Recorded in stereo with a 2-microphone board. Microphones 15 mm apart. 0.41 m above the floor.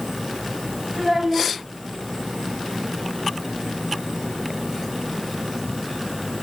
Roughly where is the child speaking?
Right.